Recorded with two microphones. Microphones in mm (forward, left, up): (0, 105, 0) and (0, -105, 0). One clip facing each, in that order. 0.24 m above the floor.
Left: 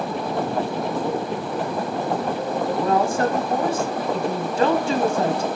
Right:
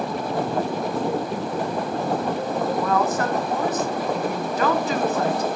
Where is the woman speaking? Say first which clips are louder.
Left 4 dB; 30° left (ahead or behind), 1.8 m.